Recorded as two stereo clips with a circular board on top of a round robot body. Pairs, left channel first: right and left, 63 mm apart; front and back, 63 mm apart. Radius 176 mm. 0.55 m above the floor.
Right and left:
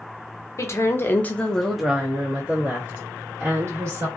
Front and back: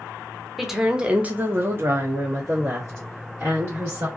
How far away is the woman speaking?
About 0.9 m.